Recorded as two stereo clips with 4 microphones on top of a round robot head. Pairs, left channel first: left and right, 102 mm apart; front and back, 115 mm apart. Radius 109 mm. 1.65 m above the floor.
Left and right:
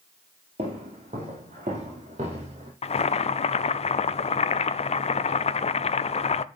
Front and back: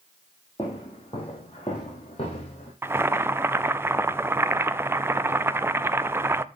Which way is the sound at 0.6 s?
70° right.